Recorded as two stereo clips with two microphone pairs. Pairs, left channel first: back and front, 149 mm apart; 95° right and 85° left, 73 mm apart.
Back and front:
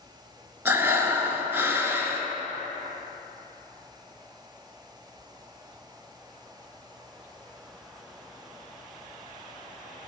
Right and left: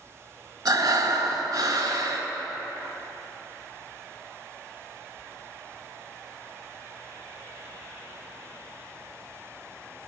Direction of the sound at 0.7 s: 75° left.